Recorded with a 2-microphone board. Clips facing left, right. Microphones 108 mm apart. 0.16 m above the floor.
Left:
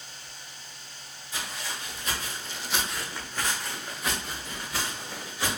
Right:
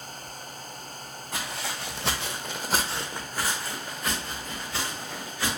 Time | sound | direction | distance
1.3 | footsteps | 60° right (ahead or behind) | 0.9 m